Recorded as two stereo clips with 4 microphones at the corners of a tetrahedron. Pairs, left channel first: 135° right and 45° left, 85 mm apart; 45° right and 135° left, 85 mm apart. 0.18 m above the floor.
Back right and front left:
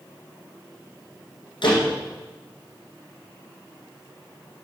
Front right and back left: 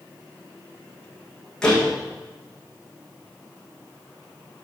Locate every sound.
1.6 s a door slam: 125° right, 7 m